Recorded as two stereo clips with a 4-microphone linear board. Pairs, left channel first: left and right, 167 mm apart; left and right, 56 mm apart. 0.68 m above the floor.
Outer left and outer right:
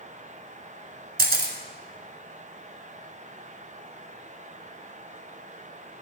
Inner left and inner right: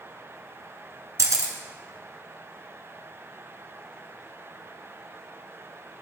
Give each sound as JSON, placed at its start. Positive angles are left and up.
{"t": 1.2, "sound": "a camera shutter", "side_deg": -75, "distance_m": 1.7}